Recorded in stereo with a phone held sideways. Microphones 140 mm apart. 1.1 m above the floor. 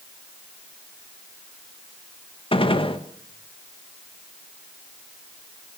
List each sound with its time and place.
2.5 s a gunshot: 40° left (ahead or behind), 1.4 m